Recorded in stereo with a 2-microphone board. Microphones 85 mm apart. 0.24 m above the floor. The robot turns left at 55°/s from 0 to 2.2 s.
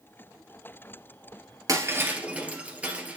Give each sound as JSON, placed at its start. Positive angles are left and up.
{"t": 1.7, "sound": "breaking glass", "side_deg": -45, "distance_m": 1.6}